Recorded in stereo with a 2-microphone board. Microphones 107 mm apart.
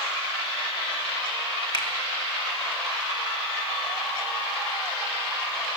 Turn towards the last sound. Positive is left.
turn(degrees=45)  # may be behind; listen again after turning